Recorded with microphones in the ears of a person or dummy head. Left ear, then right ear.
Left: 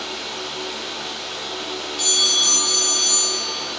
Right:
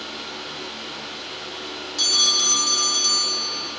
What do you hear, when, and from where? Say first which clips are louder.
0.0 s a fan: left 4 dB; 35° left (ahead or behind), 2.5 m
2.0 s a bell: even; 65° right (ahead or behind), 2.5 m